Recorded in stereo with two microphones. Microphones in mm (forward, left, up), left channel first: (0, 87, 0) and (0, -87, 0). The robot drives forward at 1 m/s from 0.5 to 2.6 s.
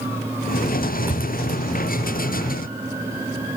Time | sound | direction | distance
1.1 | a thud | 10° right (ahead or behind) | 8.5 m